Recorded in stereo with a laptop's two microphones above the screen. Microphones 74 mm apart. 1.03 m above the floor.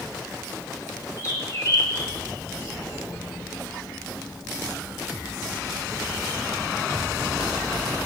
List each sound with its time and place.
1.2 s a bird: 50° left (ahead or behind), 3 m